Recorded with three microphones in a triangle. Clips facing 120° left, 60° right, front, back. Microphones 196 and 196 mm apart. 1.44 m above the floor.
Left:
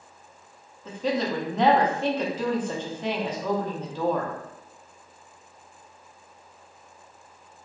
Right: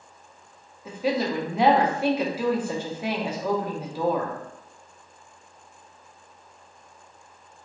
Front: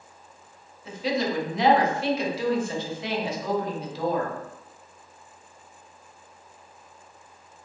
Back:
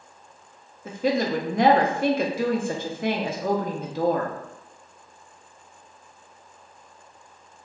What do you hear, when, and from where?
0.8 s a woman speaking: 140° right, 0.5 m